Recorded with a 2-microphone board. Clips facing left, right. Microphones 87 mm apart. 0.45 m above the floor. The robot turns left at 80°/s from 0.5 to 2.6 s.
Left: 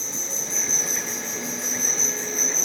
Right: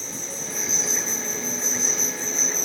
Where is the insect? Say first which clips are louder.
Even; 160° left, 3.5 m; by 2.6 s 10° right, 3.5 m.